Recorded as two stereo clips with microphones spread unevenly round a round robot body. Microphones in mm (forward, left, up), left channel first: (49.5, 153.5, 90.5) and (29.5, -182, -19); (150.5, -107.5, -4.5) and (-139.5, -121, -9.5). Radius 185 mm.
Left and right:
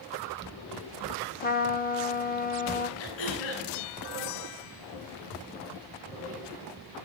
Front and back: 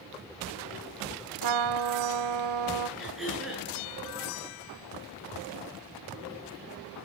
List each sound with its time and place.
1.4 s a trumpet: 160° left, 1.1 m
3.0 s throat clearing: 95° left, 9.5 m